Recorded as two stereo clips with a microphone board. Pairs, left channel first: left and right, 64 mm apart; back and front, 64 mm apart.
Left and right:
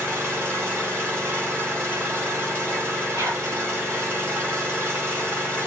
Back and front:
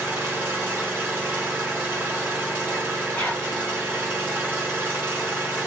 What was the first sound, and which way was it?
An engine running, 55° right.